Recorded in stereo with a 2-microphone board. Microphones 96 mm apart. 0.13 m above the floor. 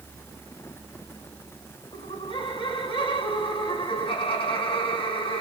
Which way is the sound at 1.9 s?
60° left (ahead or behind).